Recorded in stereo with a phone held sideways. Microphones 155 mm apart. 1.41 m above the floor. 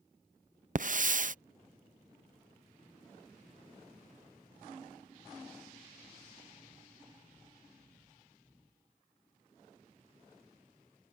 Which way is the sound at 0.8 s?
55° right (ahead or behind).